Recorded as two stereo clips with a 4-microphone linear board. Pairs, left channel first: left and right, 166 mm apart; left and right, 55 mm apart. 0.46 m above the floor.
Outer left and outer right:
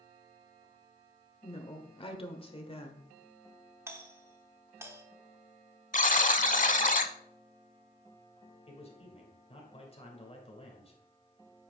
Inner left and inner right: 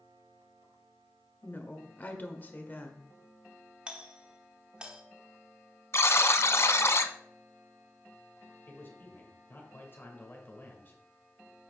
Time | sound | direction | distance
1.4 | a woman speaking | 35° left (ahead or behind) | 1.4 m
3.9 | a doorbell | 15° right (ahead or behind) | 1.1 m
5.9 | a buzzer | 55° left (ahead or behind) | 0.7 m
8.7 | a man speaking | 40° left (ahead or behind) | 2.5 m